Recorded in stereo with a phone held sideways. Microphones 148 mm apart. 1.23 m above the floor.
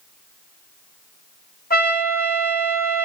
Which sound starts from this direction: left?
A trumpet, at 1.7 s.